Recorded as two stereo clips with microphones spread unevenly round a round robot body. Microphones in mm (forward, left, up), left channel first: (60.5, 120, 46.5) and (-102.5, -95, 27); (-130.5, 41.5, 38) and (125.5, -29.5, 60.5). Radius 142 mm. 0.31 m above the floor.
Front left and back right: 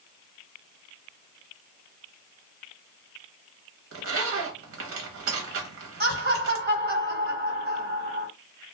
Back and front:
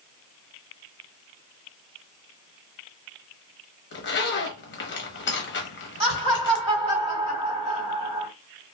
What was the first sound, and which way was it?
A zipper, 155° right.